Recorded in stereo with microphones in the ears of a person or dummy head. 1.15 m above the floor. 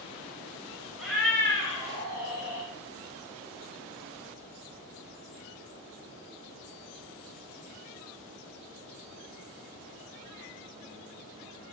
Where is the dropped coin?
No dropped coin in this recording.